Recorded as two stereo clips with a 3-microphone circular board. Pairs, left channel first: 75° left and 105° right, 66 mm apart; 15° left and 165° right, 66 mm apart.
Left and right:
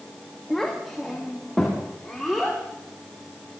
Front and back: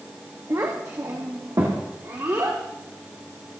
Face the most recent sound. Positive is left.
turn(degrees=160)